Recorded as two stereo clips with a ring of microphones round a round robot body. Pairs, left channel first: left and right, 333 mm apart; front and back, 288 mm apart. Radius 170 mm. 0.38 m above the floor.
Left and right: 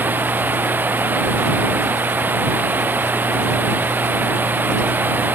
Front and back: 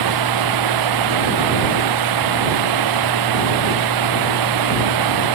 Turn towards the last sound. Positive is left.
turn(degrees=-175)